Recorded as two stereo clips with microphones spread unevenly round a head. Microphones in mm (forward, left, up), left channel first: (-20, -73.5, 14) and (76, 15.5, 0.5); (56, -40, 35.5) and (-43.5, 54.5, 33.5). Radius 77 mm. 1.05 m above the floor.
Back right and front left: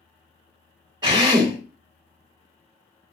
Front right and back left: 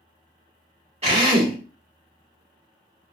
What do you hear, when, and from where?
1.0 s a drill: 100° left, 1.6 m